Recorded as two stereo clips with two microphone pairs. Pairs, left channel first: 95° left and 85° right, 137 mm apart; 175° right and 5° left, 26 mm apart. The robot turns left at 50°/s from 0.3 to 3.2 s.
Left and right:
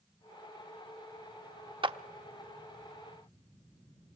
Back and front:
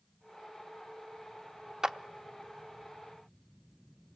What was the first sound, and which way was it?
A clap, 50° right.